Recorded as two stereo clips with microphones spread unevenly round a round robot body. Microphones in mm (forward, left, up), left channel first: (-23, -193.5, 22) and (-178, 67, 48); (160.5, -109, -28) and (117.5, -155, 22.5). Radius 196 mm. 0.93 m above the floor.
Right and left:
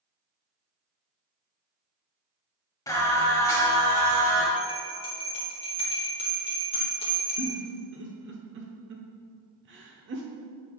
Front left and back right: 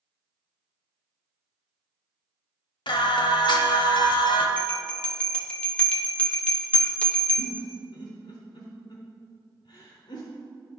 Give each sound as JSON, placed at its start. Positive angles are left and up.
{"t": 2.9, "sound": "singing", "azimuth_deg": 20, "distance_m": 0.8}
{"t": 4.6, "sound": "a bell", "azimuth_deg": 10, "distance_m": 0.9}
{"t": 7.4, "sound": "a giggle", "azimuth_deg": 100, "distance_m": 0.6}